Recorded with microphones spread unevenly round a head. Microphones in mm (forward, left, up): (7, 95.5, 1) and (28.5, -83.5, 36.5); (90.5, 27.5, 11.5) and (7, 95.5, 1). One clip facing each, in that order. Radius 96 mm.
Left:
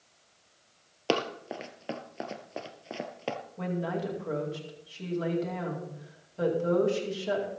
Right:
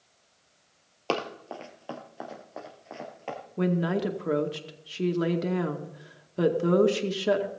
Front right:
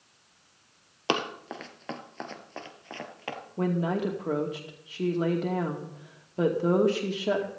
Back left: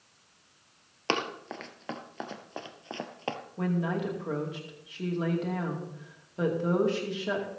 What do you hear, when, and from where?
1.1 s running footsteps: 10° left, 1.9 m; by 3.4 s 100° left, 2 m
3.6 s a woman speaking: 105° right, 2 m